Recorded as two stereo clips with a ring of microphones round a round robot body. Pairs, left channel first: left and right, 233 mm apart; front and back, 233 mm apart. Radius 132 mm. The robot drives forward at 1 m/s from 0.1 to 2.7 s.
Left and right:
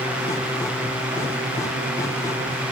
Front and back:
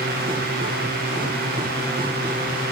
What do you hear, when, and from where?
Only background noise.